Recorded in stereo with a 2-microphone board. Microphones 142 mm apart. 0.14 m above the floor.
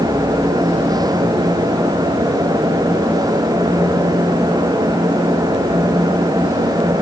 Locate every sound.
Only background noise.